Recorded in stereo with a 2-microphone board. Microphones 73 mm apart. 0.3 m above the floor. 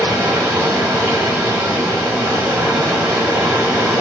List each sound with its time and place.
0.0 s running water: 25° right (ahead or behind), 2.5 m